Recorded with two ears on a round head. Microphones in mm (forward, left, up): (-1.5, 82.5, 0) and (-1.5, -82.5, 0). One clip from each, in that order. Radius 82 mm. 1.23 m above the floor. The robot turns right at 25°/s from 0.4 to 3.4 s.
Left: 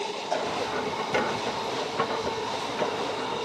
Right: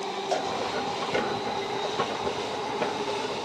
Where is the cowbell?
60° right (ahead or behind), 1.5 m.